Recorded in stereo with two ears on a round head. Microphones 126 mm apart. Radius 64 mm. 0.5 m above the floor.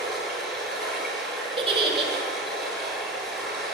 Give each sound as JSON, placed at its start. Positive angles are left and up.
{"t": 0.0, "sound": "running water", "side_deg": -5, "distance_m": 7.0}
{"t": 1.6, "sound": "a giggle", "side_deg": -40, "distance_m": 2.0}